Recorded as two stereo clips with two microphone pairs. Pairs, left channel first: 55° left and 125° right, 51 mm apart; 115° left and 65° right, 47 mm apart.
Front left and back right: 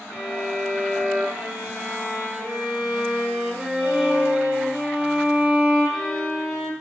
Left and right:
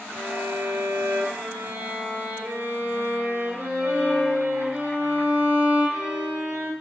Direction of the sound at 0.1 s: 55° right.